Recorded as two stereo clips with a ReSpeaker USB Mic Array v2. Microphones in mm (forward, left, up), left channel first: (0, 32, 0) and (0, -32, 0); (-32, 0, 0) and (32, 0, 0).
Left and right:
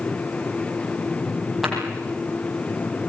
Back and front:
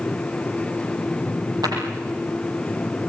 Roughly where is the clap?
Ahead.